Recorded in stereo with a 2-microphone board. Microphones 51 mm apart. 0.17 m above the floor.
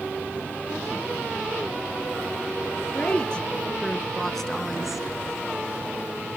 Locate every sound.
2.9 s a woman speaking: 25° left (ahead or behind), 2.5 m; by 5.0 s 5° right (ahead or behind), 1.3 m